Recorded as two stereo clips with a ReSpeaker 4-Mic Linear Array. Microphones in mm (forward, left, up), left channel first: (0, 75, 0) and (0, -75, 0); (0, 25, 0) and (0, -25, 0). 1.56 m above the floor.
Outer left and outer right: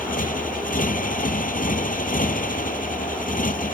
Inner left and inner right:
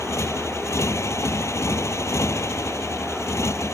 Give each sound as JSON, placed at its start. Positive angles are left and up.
{"t": 0.0, "sound": "a motorcycle", "side_deg": 65}